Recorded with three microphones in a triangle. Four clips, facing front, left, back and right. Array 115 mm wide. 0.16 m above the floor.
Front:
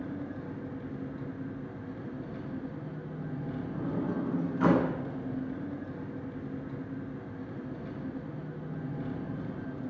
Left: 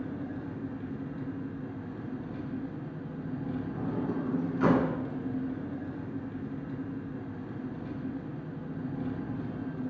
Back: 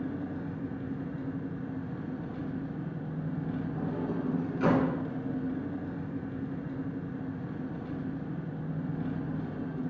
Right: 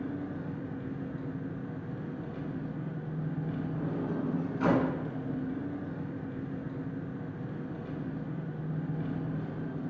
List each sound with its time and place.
0.0 s an engine running: 160° right, 0.9 m
3.7 s a sliding door: 20° left, 1.0 m